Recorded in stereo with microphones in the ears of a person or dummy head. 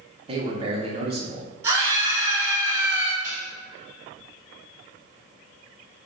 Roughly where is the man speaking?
Right.